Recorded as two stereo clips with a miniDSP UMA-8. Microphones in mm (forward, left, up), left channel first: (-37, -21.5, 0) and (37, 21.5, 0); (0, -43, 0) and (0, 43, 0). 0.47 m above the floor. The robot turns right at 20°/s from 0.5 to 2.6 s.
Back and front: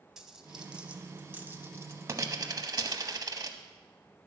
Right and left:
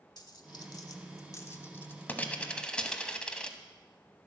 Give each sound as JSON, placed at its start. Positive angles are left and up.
{"t": 0.2, "sound": "a dropped coin", "azimuth_deg": -55, "distance_m": 0.7}